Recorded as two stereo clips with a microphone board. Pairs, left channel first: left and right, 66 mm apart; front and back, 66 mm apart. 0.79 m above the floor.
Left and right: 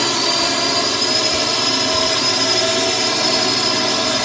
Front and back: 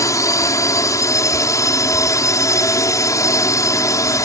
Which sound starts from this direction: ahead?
A drone, at 0.0 s.